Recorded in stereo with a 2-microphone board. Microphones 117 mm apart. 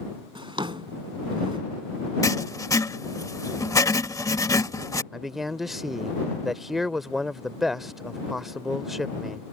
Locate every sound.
0.3 s a drawer: 45° right (ahead or behind)
2.2 s writing: 30° left (ahead or behind)
5.1 s a man speaking: centre (ahead or behind)